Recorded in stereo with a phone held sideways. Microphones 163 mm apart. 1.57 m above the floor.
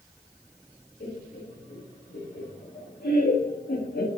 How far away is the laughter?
About 3.5 m.